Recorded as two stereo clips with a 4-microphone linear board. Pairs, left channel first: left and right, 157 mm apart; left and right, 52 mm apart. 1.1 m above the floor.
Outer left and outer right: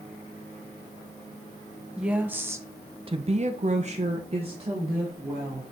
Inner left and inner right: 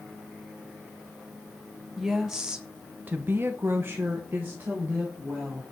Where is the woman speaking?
5° right (ahead or behind), 1.4 m; by 5.6 s 30° right (ahead or behind), 2.5 m.